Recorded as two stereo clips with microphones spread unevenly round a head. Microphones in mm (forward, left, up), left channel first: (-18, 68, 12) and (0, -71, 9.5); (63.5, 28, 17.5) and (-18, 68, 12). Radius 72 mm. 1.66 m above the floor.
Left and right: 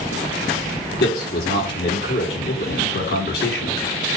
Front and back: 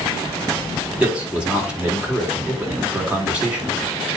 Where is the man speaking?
75° left, 4 m.